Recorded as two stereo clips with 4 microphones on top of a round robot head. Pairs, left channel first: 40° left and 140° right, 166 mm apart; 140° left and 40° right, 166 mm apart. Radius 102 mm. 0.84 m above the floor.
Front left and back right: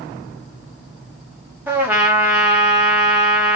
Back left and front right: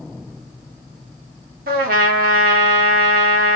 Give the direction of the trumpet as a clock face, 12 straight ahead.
2 o'clock.